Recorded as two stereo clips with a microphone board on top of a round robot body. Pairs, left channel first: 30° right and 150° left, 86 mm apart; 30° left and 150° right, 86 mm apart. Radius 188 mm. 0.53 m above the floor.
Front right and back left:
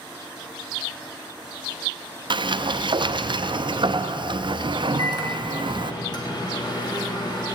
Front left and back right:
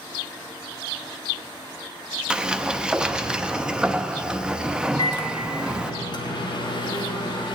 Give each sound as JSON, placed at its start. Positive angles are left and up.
{"t": 2.3, "sound": "a sliding door", "azimuth_deg": 130, "distance_m": 0.7}
{"t": 5.0, "sound": "a microwave", "azimuth_deg": 5, "distance_m": 2.0}